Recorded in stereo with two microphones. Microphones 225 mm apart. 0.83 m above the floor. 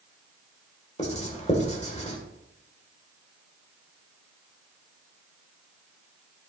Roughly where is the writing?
Left.